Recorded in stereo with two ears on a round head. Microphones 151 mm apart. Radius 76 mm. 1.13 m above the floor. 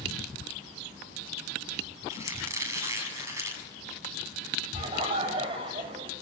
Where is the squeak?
20° right (ahead or behind), 6.5 m.